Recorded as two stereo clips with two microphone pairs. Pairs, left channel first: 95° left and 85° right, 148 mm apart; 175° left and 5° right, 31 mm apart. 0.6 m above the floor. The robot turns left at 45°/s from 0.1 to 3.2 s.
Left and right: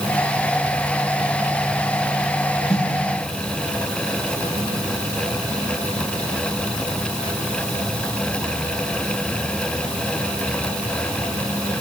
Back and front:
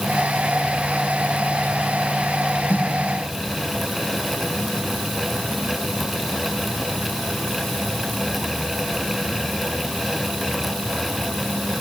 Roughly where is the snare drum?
Behind left.